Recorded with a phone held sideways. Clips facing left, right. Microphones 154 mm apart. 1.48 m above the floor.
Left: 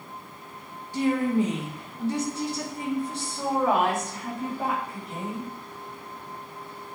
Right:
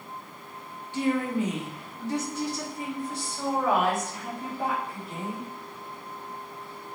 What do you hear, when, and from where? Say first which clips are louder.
0.9 s a woman speaking: left 3 dB; 40° left (ahead or behind), 2.0 m; by 5.5 s 20° left (ahead or behind), 4.5 m